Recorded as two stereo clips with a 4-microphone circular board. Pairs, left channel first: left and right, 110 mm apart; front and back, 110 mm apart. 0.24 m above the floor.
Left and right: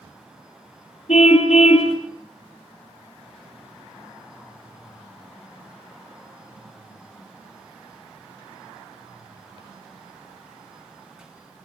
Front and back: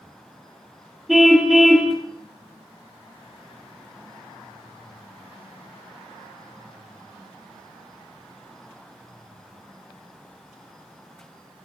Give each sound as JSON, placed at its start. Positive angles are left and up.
{"t": 1.1, "sound": "a car horn", "azimuth_deg": 90, "distance_m": 3.5}